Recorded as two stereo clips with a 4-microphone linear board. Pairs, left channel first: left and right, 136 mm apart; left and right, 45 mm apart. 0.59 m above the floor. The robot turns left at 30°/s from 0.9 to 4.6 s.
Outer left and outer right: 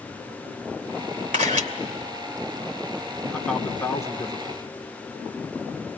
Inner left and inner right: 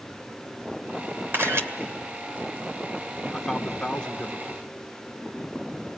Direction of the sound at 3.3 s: 175° left.